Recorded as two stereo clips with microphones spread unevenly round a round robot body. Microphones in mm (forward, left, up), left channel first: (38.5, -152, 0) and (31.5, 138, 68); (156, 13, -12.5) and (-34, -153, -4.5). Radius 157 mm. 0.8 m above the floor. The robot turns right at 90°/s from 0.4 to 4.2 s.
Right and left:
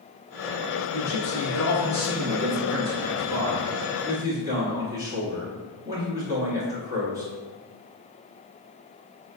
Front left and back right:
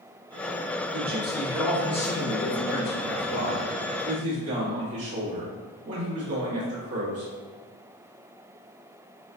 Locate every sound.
0.9 s a man speaking: 120° right, 1.2 m; by 7.3 s 175° left, 1.2 m